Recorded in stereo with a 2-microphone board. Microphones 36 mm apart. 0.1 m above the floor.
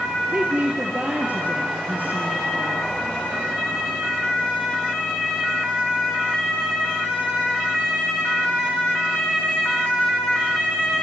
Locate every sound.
0.3 s a woman speaking: 45° right (ahead or behind), 2 m